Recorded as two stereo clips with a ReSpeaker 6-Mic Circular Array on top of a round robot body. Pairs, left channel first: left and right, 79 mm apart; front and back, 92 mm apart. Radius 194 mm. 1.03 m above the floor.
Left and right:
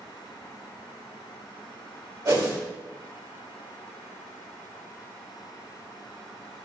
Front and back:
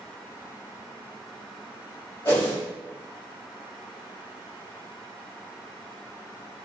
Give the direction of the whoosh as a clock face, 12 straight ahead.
2 o'clock.